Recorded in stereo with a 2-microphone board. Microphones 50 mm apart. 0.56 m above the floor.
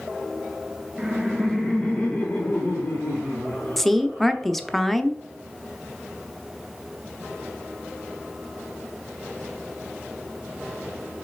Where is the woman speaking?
5° left (ahead or behind), 0.6 m.